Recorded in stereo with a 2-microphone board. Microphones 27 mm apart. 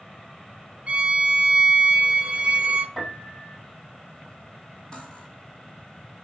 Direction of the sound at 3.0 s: 5° left (ahead or behind).